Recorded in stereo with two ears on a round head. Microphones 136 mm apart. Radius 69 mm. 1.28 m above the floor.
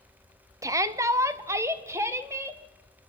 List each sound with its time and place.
0.6 s a shout: 20° right (ahead or behind), 0.9 m